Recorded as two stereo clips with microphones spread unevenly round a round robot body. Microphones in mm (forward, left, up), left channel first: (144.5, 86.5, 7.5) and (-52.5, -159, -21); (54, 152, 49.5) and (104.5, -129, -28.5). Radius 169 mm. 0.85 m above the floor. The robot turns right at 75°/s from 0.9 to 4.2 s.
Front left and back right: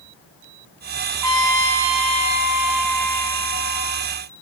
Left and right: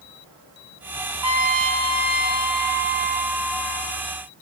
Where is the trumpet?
105° right, 1.8 m; by 4.1 s 110° left, 1.8 m.